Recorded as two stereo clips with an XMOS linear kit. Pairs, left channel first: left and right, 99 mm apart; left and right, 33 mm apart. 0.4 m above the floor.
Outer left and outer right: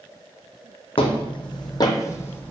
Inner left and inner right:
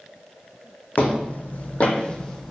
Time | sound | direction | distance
1.0 | footsteps | 65° left (ahead or behind) | 1.0 m